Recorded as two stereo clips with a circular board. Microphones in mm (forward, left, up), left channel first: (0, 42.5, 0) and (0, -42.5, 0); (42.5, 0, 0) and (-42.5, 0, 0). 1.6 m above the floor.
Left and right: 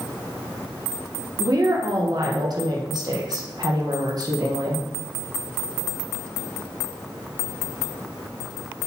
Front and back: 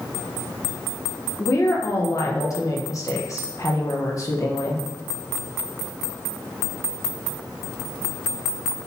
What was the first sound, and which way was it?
A woman speaking, 50° right.